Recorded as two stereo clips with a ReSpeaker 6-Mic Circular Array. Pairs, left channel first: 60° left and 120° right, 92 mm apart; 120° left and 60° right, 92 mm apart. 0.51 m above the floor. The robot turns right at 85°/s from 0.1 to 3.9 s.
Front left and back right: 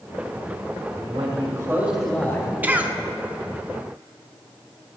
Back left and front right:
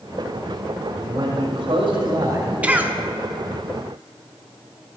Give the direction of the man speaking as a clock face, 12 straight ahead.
4 o'clock.